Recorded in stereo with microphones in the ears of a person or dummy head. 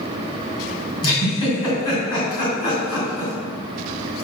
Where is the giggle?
30° left (ahead or behind), 2.5 m.